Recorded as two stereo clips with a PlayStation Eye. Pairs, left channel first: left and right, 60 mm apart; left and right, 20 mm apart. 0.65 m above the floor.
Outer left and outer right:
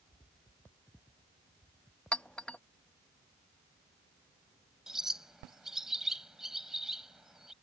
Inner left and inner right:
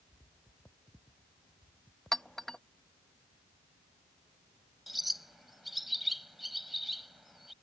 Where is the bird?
5° right (ahead or behind).